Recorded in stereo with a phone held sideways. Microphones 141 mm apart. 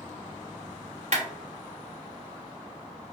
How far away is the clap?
About 1.3 m.